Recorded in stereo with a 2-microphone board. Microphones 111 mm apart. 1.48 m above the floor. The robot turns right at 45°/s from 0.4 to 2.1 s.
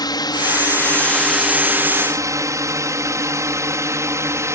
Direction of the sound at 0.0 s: 35° left (ahead or behind).